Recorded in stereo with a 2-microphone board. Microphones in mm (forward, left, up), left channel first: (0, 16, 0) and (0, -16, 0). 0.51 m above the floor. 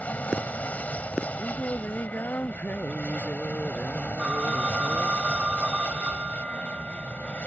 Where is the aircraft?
50° left (ahead or behind).